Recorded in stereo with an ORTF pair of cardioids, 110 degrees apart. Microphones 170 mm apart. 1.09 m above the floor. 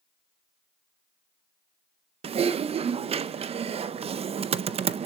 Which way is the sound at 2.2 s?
35° right.